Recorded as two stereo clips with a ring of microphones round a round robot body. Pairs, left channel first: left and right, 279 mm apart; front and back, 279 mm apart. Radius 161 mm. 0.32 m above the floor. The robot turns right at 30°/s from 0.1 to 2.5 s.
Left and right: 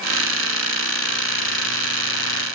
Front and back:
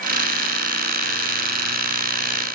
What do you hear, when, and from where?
Only background noise.